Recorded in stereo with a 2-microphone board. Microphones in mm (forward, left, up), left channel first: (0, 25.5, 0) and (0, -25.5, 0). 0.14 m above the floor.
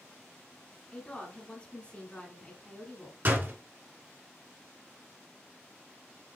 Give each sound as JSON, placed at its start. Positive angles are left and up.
{"t": 0.9, "sound": "a woman speaking", "side_deg": 20, "distance_m": 1.5}
{"t": 3.2, "sound": "a door slam", "side_deg": -40, "distance_m": 1.1}